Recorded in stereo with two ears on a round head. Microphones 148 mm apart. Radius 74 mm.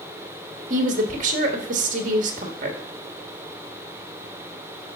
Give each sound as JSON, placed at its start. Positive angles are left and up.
{"t": 0.7, "sound": "a woman speaking", "side_deg": -50, "distance_m": 1.6}